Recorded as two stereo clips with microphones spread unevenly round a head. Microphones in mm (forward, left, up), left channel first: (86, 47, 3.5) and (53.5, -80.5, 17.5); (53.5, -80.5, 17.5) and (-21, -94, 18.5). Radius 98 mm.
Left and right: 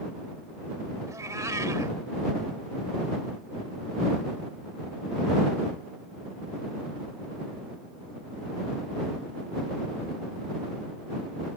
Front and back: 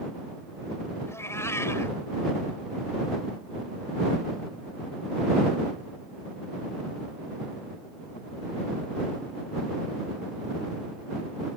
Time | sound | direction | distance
1.1 | a cat meowing | 40° right | ?